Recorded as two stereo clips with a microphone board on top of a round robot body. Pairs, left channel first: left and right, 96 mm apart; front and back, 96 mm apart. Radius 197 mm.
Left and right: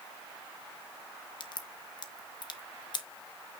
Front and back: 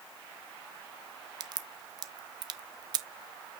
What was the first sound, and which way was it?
A crack, 135° left.